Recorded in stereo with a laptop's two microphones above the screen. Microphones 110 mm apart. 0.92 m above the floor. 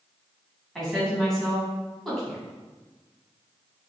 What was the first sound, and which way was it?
A woman speaking, centre (ahead or behind).